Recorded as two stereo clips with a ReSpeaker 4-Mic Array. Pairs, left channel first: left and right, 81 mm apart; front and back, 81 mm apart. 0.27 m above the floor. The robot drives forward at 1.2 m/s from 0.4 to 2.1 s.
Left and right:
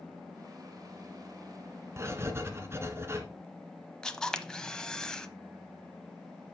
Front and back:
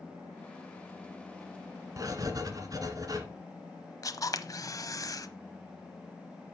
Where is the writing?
140° right, 1.4 m; by 3.2 s 145° right, 1.5 m.